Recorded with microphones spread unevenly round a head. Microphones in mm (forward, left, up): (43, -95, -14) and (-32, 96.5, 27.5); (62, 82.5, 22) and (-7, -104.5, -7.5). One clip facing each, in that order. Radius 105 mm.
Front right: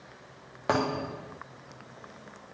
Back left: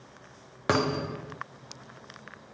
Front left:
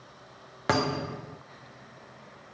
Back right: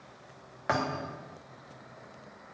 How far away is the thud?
About 0.8 m.